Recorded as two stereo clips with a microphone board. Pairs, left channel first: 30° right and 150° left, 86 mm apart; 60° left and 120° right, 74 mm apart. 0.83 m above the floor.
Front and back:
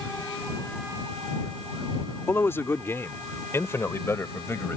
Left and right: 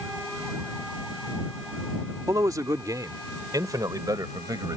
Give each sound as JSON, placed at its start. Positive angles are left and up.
{"t": 2.3, "sound": "a man speaking", "azimuth_deg": -90}